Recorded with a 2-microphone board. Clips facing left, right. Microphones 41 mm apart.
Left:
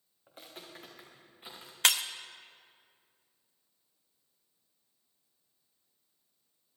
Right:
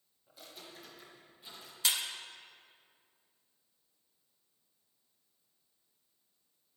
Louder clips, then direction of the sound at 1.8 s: Left 6 dB; 65° left (ahead or behind).